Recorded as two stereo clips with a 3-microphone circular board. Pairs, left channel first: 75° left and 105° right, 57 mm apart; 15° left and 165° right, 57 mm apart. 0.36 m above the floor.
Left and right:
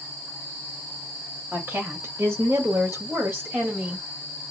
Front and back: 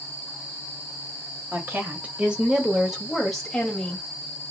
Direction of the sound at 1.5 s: 135° right.